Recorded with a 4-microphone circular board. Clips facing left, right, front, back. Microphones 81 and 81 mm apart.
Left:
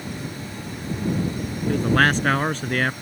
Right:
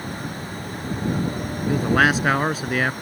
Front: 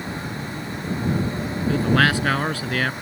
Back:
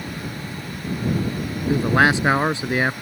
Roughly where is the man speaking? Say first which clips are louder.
Right 1 dB, back 2 dB; behind.